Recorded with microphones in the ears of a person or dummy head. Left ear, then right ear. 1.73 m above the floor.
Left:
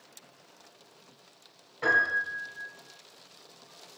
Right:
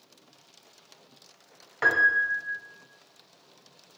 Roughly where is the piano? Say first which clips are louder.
Right 4 dB; right.